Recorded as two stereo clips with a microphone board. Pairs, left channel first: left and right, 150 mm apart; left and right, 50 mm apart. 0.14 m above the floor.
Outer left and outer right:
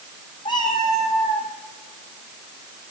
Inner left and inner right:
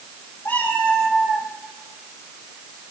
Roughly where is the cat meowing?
Left.